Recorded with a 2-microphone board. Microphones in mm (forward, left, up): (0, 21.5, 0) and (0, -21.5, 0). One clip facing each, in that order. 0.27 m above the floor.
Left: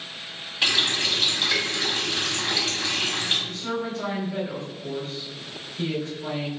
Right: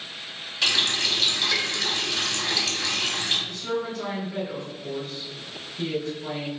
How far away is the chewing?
I don't hear chewing.